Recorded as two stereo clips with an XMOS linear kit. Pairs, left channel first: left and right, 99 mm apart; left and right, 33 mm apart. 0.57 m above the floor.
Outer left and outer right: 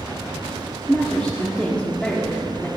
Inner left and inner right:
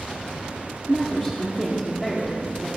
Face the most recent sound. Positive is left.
turn(degrees=10)  # may be behind; listen again after turning